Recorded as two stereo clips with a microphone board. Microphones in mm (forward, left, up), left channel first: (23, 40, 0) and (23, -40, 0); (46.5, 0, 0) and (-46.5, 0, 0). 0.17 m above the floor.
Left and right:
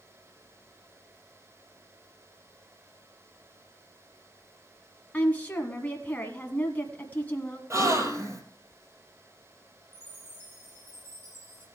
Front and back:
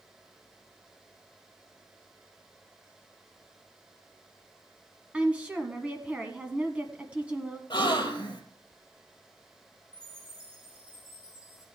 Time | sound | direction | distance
5.1 | a woman speaking | 125° left | 1.2 m
7.7 | a gasp | 35° right | 1.7 m
9.9 | a chime | 150° right | 8 m